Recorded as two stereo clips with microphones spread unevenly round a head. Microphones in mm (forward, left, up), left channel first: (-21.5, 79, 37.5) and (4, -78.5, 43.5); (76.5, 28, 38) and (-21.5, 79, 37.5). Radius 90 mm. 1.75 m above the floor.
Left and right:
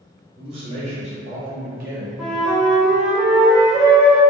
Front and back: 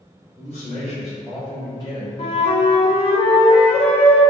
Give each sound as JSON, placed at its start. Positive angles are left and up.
{"t": 0.4, "sound": "a man speaking", "azimuth_deg": -135, "distance_m": 1.7}
{"t": 2.2, "sound": "a flute", "azimuth_deg": 5, "distance_m": 0.7}